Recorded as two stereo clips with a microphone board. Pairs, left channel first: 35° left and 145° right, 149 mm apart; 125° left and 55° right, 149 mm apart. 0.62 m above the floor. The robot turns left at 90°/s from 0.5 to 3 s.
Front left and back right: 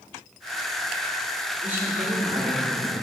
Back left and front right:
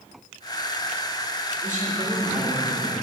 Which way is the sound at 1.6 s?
60° right.